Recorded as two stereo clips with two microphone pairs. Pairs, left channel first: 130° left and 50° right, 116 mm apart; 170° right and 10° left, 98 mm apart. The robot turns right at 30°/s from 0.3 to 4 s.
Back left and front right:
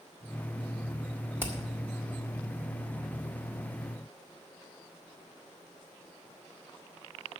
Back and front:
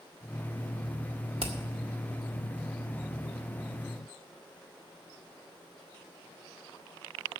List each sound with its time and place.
1.4 s hammering: 20° left, 1.8 m; by 1.5 s 25° left, 1.8 m